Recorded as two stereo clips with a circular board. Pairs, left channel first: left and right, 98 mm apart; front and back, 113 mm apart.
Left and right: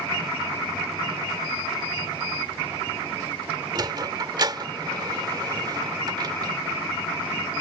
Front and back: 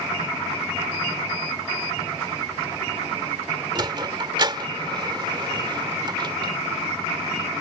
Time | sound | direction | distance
3.8 | a sliding door | 135° right | ?